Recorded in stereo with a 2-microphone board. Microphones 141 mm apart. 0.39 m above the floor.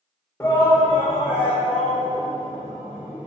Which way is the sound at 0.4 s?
20° left (ahead or behind).